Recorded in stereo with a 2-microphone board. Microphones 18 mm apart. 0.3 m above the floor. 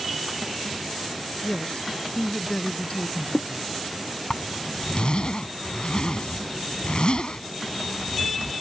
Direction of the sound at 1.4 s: 65° left (ahead or behind).